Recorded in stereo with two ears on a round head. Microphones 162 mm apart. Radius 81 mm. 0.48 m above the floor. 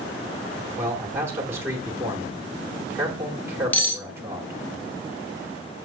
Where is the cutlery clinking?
10° left (ahead or behind), 0.6 m.